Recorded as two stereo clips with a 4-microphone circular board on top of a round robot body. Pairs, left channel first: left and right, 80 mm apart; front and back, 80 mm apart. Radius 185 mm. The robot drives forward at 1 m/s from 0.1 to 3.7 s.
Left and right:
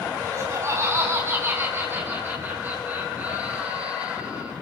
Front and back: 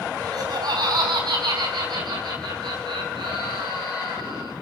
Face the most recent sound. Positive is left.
turn(degrees=-160)